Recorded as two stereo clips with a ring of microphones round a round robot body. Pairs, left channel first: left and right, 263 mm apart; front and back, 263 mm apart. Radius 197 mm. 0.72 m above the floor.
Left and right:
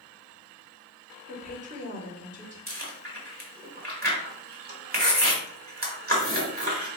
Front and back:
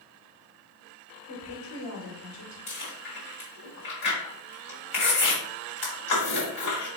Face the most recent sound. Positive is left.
turn(degrees=-30)